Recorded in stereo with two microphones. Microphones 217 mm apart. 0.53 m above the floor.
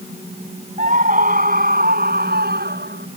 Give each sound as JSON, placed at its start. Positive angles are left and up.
{"t": 0.8, "sound": "a scream", "side_deg": -35}